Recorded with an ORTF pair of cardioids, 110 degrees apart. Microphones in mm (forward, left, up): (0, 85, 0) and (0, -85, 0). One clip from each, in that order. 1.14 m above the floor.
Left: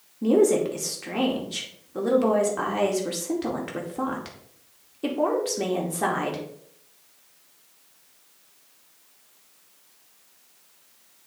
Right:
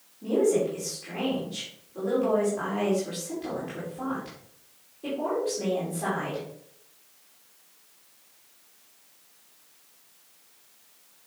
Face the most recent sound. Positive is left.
turn(degrees=65)